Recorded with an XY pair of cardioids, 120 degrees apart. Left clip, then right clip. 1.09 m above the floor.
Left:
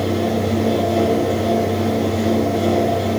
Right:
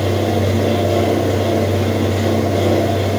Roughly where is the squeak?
No squeak in this recording.